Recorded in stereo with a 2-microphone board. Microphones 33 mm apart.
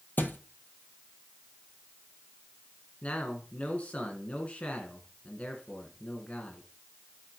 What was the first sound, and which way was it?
A thud, 75° left (ahead or behind).